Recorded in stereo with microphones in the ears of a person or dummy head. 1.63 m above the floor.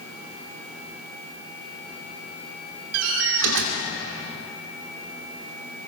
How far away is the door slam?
About 2.5 m.